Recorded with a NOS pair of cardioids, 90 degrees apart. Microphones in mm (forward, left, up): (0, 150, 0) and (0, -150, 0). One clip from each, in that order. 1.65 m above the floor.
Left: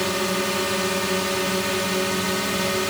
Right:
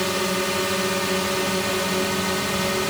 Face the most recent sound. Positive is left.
turn(degrees=-5)